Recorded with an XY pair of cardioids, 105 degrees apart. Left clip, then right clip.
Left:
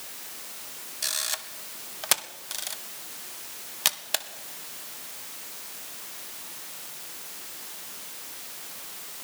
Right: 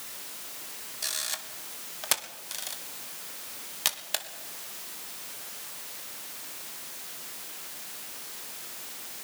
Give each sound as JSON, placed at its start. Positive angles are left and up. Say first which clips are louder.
{"t": 1.0, "sound": "a camera shutter", "louder": "left 3 dB", "azimuth_deg": 20, "distance_m": 1.8}